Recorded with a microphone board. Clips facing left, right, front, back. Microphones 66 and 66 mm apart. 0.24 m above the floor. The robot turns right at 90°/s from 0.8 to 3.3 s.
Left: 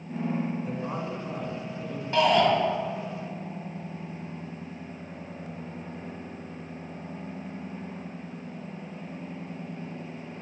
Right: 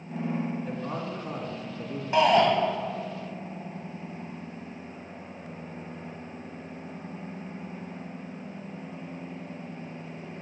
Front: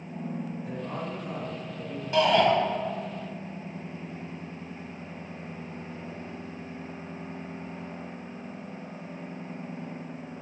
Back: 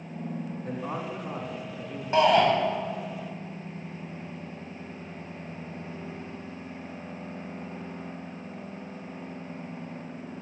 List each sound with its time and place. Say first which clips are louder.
0.6 s a man speaking: left 1 dB, back 1 dB; 165° left, 2 m; by 2.0 s 85° right, 2 m
2.1 s a shout: right 1 dB, back 1 dB; 145° right, 1.2 m; by 2.5 s 110° right, 1.2 m